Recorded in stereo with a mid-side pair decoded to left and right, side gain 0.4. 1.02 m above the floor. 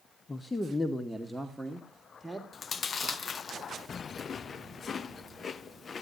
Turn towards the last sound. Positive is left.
turn(degrees=50)